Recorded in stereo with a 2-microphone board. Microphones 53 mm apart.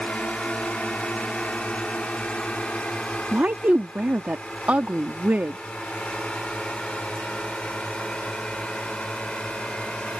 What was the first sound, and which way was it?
A drone, 15° left (ahead or behind).